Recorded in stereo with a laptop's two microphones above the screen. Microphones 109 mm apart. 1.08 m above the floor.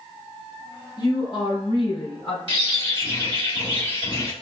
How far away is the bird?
About 1.6 m.